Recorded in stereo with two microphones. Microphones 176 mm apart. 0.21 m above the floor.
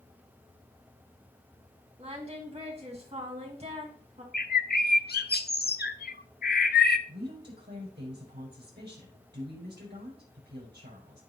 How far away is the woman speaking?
About 6.5 m.